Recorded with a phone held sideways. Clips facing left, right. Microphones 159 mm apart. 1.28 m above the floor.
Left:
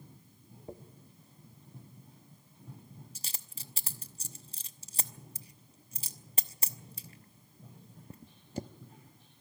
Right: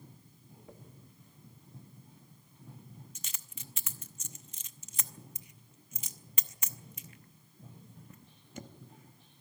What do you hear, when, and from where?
0.7 s a dropped coin: 35° left (ahead or behind), 0.8 m